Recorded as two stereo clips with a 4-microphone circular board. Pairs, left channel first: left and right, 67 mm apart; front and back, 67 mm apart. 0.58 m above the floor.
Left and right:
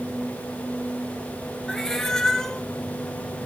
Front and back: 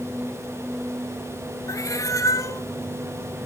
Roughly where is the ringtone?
I don't hear a ringtone.